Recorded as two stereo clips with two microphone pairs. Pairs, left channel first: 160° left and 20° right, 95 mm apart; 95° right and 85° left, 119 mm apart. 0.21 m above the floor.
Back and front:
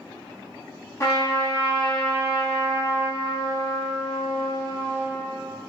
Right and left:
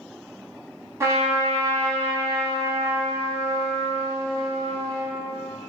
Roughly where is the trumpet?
Behind left.